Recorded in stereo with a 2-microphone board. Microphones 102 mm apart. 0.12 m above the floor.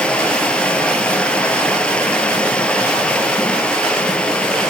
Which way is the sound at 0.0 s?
10° left (ahead or behind).